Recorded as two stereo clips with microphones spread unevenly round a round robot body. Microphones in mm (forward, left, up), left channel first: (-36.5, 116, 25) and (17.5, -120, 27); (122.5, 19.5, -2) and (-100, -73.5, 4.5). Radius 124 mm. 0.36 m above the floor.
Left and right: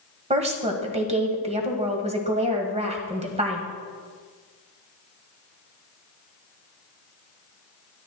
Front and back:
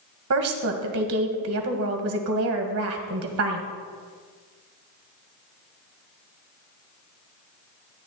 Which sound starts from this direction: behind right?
A woman speaking, at 0.3 s.